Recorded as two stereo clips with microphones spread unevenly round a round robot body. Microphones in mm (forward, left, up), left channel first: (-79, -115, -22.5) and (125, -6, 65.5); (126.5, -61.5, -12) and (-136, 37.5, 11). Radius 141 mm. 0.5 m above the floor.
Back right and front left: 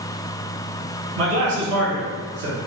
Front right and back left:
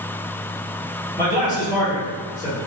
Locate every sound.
1.2 s a man speaking: 30° left, 1.2 m